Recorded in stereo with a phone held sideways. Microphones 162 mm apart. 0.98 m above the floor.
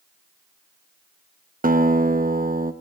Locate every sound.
1.6 s a guitar: 60° right (ahead or behind), 0.8 m